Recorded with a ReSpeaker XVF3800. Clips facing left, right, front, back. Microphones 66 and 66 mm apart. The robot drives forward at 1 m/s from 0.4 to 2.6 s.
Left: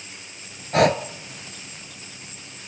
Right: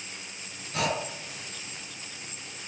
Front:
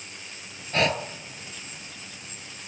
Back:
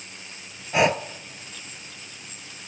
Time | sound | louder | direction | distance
0.7 | breathing | left 11 dB, back 4 dB | 105° left | 0.6 m